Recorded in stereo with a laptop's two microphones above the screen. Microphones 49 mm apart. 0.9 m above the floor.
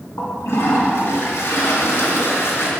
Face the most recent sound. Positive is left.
turn(degrees=60)  # may be behind; listen again after turning